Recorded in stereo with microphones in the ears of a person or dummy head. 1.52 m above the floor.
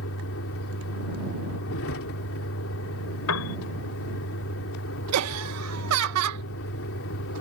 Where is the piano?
90° left.